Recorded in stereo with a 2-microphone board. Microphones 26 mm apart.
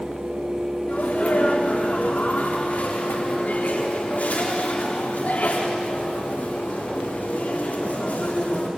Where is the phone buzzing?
No phone buzzing in this recording.